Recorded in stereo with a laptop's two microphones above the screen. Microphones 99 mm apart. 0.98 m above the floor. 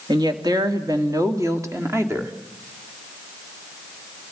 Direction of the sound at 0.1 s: 45° right (ahead or behind).